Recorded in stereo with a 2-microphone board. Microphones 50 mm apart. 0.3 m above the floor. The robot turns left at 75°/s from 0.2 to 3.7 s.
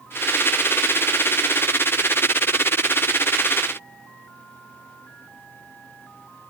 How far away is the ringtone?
No ringtone in this recording.